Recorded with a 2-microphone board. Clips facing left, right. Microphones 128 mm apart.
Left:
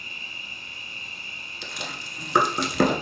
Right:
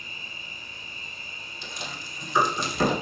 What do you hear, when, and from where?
0.0 s an insect: 75° left (ahead or behind), 2.5 m
1.6 s chewing: 70° left (ahead or behind), 0.8 m